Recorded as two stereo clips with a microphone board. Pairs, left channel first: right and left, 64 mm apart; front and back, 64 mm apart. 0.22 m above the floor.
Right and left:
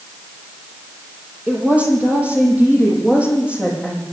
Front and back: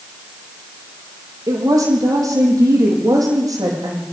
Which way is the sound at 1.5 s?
160° left.